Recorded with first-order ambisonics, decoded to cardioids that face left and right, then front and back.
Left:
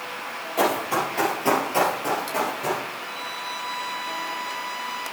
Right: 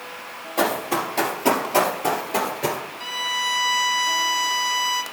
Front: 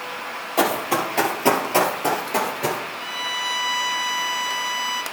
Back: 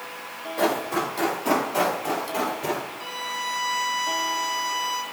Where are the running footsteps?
5° right, 3 m; by 2.8 s 45° right, 2 m.